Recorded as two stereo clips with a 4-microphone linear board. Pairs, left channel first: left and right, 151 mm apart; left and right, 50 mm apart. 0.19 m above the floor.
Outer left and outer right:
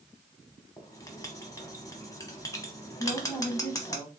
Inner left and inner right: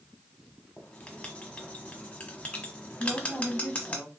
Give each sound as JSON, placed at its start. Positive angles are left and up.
{"t": 0.8, "sound": "writing", "side_deg": 20, "distance_m": 1.0}
{"t": 3.0, "sound": "a woman speaking", "side_deg": 20, "distance_m": 1.3}